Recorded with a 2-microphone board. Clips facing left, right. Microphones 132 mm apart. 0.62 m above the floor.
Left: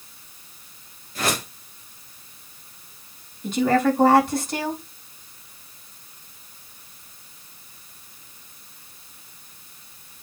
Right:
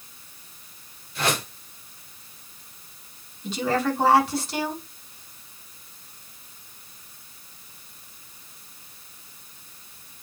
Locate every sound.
1.1 s a whoosh: 40° left (ahead or behind), 5.5 m
3.4 s a woman speaking: 50° left (ahead or behind), 5 m